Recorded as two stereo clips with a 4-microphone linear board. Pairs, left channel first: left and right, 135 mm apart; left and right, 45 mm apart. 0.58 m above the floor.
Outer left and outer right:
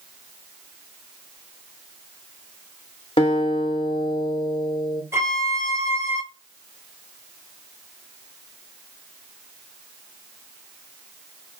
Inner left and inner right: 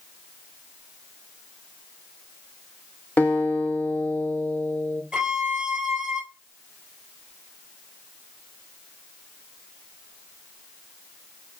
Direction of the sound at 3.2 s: 40° left (ahead or behind).